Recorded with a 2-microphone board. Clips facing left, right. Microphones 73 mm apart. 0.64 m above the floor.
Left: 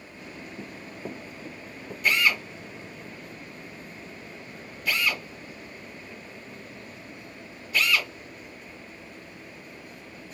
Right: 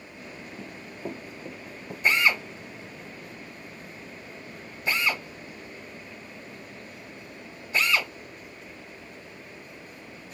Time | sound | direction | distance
0.6 | running footsteps | 10° left (ahead or behind) | 0.6 m
2.0 | a drill | 25° right (ahead or behind) | 1.1 m